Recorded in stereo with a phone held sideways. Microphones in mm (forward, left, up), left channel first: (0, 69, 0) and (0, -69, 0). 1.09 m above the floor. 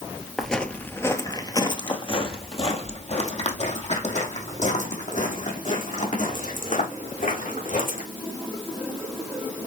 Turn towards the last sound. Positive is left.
turn(degrees=70)  # may be behind; listen again after turning